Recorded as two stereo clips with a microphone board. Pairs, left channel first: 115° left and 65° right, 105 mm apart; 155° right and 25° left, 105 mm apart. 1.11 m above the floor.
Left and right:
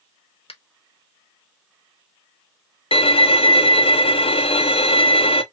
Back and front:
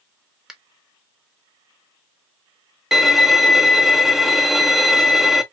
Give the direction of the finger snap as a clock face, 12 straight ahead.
8 o'clock.